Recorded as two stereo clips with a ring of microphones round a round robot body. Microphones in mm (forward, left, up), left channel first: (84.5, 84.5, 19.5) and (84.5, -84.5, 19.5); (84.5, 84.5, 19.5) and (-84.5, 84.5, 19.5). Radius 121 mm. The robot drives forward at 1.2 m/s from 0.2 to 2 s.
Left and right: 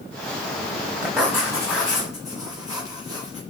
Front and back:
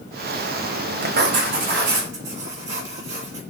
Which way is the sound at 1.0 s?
175° right.